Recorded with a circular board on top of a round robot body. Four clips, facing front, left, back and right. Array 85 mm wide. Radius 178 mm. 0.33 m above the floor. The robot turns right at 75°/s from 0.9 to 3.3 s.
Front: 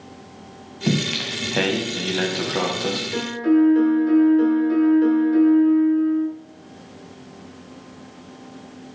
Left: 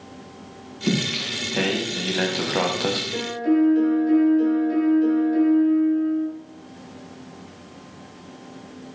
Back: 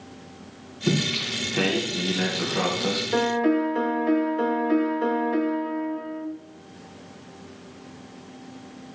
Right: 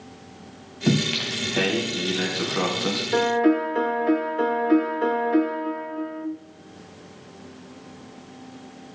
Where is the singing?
55° right, 3 m; by 3.0 s 105° left, 3 m.